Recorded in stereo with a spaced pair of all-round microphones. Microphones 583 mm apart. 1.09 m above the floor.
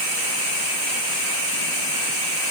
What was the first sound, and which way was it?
Only background noise.